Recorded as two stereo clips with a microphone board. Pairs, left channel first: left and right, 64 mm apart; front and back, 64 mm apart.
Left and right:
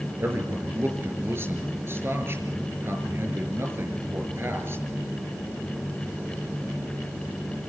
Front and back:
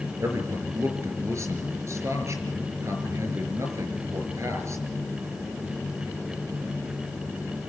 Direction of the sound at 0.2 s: 140° right.